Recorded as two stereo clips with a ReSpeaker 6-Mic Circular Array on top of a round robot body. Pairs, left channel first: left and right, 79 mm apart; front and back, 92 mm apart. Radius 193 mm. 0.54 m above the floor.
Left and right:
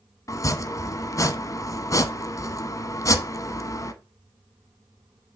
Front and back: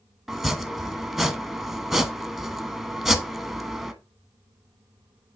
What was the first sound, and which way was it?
Chopping, 90° left.